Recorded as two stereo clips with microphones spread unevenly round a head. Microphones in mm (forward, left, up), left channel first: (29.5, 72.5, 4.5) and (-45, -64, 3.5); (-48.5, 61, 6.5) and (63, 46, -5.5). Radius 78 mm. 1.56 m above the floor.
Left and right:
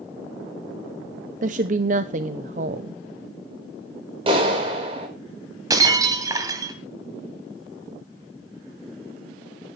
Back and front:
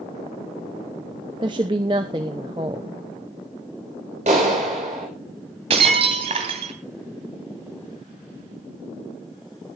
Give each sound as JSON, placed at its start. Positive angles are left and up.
{"t": 1.4, "sound": "a woman speaking", "azimuth_deg": -75, "distance_m": 0.7}
{"t": 4.3, "sound": "a clap", "azimuth_deg": -60, "distance_m": 5.0}
{"t": 5.7, "sound": "breaking glass", "azimuth_deg": -55, "distance_m": 2.0}